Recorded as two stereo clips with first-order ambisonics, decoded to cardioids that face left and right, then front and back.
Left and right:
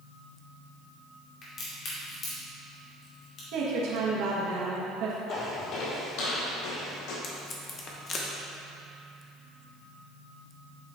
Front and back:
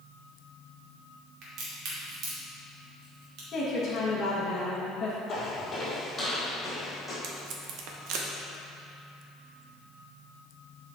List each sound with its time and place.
1.4 s a crack: 145° left, 2.5 m
3.5 s a woman speaking: 65° right, 1.3 m
5.3 s footsteps: 60° left, 1.7 m; by 7.1 s 90° left, 3.5 m
7.2 s tape being pulled: 150° left, 0.9 m